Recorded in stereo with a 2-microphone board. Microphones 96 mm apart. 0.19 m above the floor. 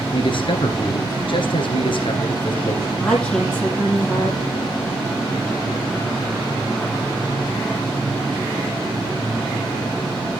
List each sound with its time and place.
0.1 s a man speaking: 60° left (ahead or behind), 2.5 m
3.0 s a woman speaking: 10° left (ahead or behind), 5.5 m